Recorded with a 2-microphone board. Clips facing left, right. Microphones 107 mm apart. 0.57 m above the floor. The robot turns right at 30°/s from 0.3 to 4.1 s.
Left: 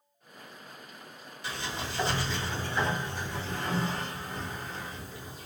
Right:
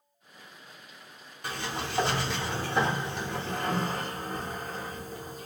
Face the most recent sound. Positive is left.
turn(degrees=-45)